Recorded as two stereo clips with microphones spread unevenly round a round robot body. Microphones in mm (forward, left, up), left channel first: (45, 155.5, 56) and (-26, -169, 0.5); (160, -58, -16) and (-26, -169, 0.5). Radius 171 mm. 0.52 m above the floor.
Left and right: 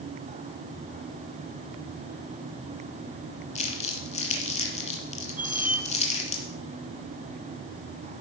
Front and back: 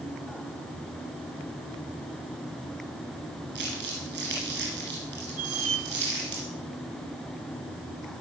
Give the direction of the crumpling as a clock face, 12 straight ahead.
7 o'clock.